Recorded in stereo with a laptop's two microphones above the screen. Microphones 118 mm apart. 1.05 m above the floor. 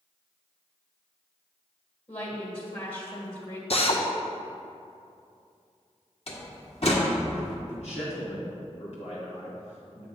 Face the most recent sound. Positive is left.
turn(degrees=65)  # may be behind; listen again after turning